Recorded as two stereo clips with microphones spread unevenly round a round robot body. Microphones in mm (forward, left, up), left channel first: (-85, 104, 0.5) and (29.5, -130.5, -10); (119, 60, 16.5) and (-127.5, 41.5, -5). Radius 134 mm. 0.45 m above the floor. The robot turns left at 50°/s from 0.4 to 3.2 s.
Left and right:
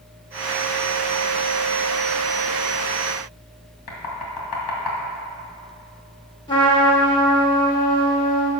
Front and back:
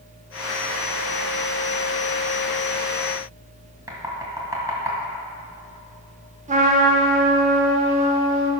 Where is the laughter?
No laughter in this recording.